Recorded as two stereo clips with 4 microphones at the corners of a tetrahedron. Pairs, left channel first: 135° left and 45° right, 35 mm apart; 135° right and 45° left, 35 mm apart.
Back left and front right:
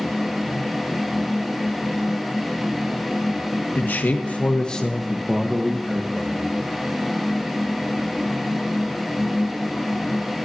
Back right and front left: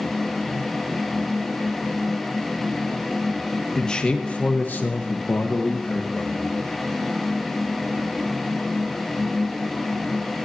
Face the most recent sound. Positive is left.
turn(degrees=-85)